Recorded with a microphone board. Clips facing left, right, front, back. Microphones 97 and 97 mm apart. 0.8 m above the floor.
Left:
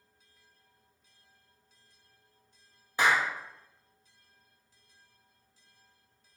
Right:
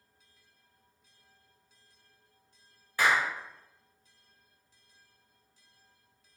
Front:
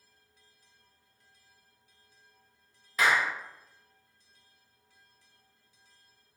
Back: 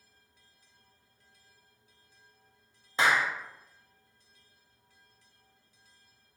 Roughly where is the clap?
Behind left.